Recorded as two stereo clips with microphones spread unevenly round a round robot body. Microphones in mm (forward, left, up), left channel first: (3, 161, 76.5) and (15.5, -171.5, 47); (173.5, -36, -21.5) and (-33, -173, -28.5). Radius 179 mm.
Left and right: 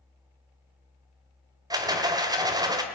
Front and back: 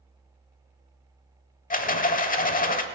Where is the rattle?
15° right, 1.2 m.